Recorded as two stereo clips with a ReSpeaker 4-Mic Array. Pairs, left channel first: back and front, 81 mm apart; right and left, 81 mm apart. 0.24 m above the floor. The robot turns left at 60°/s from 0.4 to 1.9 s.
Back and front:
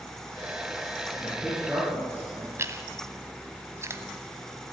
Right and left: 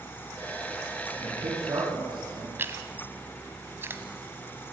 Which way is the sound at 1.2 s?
110° left.